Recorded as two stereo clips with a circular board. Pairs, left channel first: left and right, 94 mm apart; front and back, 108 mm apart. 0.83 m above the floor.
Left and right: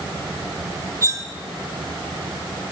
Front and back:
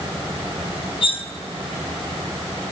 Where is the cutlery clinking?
35° right, 0.7 m.